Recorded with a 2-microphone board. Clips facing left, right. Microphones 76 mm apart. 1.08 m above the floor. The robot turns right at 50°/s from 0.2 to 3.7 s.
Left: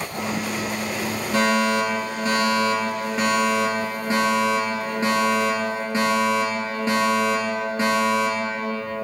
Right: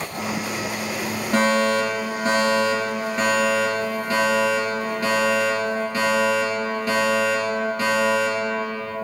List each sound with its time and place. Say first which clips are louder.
1.3 s a fire alarm: right 1 dB; 90° right, 4.5 m; by 8.9 s 30° left, 4.5 m